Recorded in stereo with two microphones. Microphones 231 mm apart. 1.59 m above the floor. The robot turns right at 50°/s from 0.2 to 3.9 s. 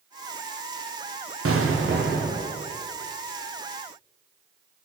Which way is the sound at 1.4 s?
75° right.